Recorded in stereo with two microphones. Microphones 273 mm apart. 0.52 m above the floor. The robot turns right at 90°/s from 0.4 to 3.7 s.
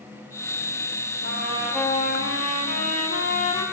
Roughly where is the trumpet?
Ahead right.